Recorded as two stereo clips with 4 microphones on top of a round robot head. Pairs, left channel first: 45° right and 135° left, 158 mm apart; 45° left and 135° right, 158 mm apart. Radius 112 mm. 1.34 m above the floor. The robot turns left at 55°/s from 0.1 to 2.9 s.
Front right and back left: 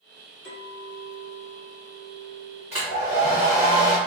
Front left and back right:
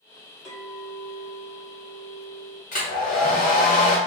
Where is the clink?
40° right, 1.1 m; by 2.6 s 160° right, 1.1 m.